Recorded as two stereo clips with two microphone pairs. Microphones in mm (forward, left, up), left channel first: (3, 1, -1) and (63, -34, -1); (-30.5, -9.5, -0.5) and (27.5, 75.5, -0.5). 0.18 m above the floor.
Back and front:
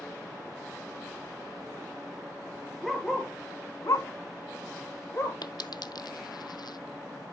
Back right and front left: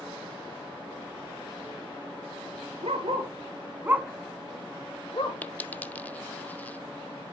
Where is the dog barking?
60° left, 1.7 m; by 5.4 s 155° right, 1.9 m.